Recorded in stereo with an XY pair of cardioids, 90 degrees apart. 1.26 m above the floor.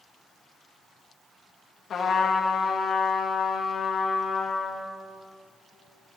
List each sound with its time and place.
1.9 s a trumpet: 60° left, 1.8 m